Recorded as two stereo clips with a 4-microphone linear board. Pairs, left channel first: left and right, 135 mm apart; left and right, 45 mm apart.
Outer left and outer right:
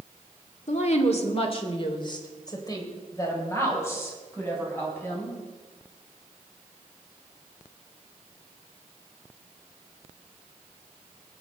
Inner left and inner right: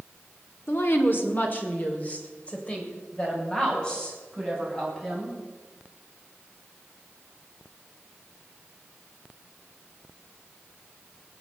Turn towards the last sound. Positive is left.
turn(degrees=15)  # may be behind; listen again after turning